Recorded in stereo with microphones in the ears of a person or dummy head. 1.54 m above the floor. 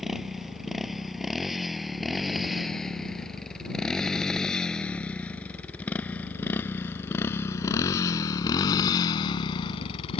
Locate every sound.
0.0 s a motorcycle: 5° right (ahead or behind); by 10.2 s 35° left (ahead or behind)